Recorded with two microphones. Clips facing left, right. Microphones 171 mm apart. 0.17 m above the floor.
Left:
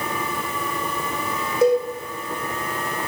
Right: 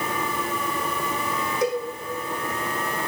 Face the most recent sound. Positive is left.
turn(degrees=25)  # may be behind; listen again after turning